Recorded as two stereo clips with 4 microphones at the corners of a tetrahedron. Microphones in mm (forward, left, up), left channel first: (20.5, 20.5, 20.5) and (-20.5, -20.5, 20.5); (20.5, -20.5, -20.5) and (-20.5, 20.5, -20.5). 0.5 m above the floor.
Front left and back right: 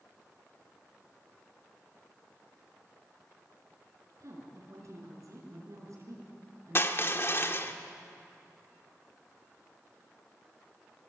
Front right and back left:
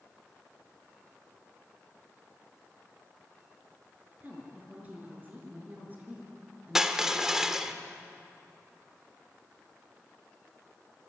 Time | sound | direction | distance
4.2 | a woman speaking | 165° right | 6.5 m
6.8 | crushing | 60° left | 1.1 m